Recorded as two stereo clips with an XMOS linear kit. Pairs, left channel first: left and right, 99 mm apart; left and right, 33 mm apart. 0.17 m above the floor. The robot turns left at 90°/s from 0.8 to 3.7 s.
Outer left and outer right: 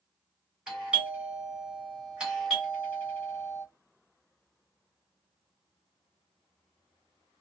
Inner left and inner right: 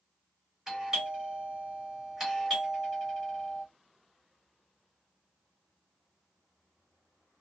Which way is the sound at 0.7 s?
10° right (ahead or behind).